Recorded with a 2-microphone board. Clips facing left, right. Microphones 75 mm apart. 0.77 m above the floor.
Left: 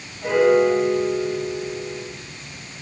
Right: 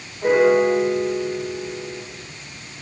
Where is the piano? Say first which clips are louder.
Right 1 dB; 45° right (ahead or behind), 2.5 m.